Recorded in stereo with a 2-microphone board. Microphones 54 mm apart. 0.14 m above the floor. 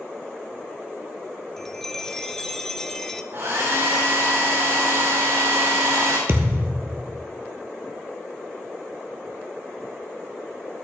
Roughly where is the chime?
Centre.